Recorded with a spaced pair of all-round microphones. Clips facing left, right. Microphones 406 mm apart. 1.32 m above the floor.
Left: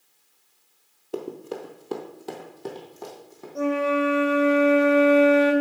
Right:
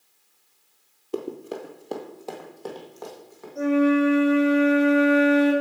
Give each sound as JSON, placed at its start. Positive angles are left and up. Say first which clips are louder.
{"t": 1.1, "sound": "running footsteps", "louder": "right 1 dB", "side_deg": -10, "distance_m": 1.4}
{"t": 3.5, "sound": "a flute", "louder": "right 5 dB", "side_deg": 75, "distance_m": 2.0}